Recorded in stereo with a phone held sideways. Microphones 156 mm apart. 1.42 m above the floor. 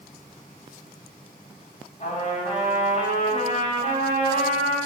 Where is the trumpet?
45° left (ahead or behind), 4.5 m.